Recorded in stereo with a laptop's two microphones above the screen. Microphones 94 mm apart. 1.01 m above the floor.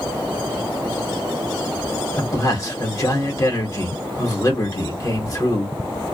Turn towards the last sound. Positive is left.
turn(degrees=35)  # may be behind; listen again after turning